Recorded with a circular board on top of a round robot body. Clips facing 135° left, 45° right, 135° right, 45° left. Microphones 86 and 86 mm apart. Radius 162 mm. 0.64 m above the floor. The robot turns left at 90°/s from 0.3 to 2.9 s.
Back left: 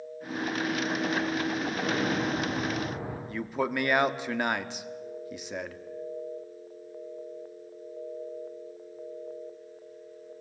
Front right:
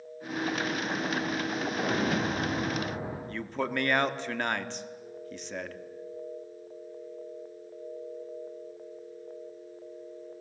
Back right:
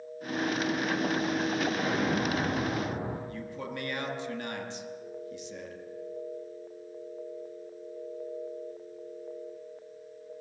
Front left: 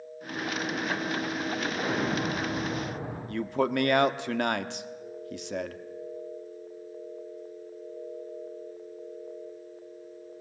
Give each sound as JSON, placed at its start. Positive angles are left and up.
{"t": 1.7, "sound": "an explosion", "azimuth_deg": -10, "distance_m": 8.0}
{"t": 3.3, "sound": "a man speaking", "azimuth_deg": 55, "distance_m": 1.4}